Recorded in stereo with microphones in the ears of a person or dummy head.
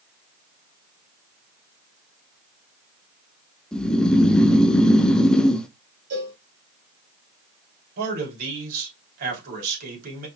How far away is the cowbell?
About 2.5 m.